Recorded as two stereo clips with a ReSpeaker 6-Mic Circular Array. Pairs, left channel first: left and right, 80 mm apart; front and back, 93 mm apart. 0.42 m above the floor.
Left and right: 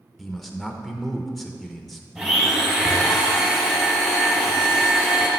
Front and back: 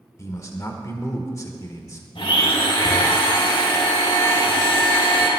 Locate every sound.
0.2 s a man speaking: 5° left, 1.1 m
2.1 s a blender: 10° right, 3 m